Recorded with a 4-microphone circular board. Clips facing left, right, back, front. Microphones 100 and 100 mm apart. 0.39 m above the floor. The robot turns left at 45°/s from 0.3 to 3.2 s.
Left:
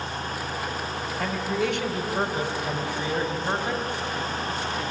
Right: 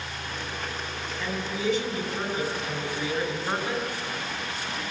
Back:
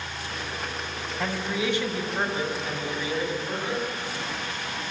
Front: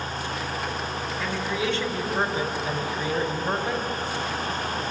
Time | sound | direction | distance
1.2 | a man speaking | 130° left | 3 m